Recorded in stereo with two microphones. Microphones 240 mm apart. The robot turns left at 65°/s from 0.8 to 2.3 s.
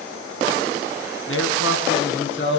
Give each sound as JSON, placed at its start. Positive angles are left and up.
{"t": 1.3, "sound": "a man speaking", "azimuth_deg": 120, "distance_m": 4.0}